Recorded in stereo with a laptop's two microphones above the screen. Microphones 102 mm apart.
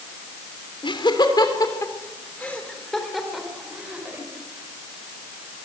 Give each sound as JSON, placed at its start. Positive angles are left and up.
{"t": 0.8, "sound": "laughter", "side_deg": 55, "distance_m": 3.5}